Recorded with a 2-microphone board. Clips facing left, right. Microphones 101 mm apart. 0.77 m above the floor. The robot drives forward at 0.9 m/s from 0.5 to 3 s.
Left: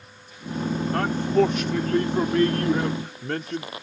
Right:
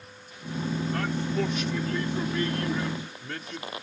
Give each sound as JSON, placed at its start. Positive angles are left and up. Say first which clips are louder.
{"t": 0.9, "sound": "a man speaking", "louder": "left 11 dB", "side_deg": 50}